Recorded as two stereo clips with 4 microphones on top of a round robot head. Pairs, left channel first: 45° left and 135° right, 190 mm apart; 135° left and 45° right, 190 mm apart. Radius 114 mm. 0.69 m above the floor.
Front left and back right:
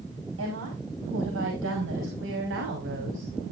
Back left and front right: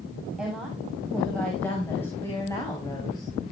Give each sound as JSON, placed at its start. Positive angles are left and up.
{"t": 0.4, "sound": "a woman speaking", "azimuth_deg": -135, "distance_m": 5.0}